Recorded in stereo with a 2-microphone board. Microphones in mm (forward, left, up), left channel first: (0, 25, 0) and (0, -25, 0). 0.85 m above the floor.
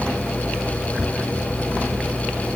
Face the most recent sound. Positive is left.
No sound to turn to.